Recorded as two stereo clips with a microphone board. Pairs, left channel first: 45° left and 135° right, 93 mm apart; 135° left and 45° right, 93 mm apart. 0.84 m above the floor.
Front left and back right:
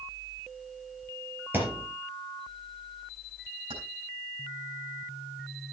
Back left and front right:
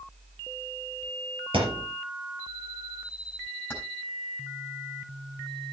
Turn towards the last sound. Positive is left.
turn(degrees=-155)